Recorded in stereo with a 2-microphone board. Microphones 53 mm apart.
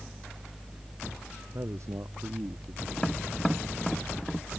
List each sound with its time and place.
1.5 s a man speaking: 65° right (ahead or behind)
3.0 s tapping: 5° left (ahead or behind)